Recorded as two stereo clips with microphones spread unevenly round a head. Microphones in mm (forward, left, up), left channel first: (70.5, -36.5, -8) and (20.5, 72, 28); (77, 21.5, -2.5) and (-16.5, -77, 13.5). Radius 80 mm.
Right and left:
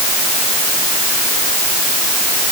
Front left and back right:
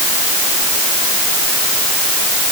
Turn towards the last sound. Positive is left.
No sound to turn to.